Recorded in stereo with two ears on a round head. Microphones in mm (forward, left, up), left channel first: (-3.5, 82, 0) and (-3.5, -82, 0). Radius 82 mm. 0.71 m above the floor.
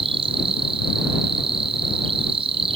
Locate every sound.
0.0 s an insect: 30° right (ahead or behind)